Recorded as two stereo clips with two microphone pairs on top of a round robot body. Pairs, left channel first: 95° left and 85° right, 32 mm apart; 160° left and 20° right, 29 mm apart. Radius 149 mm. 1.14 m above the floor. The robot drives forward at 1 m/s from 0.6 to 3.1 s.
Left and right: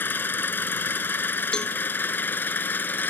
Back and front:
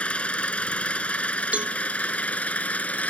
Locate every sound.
0.0 s an engine running: 110° left; by 3.1 s 115° left
1.5 s a cowbell: 30° left